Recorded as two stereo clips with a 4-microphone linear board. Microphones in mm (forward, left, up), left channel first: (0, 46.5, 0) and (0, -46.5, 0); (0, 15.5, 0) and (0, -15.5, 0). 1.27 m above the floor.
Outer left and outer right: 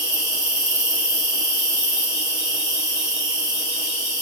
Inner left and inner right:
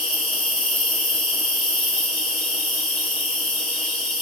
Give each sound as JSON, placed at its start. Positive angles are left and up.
{"t": 0.0, "sound": "an insect", "side_deg": 30, "distance_m": 1.9}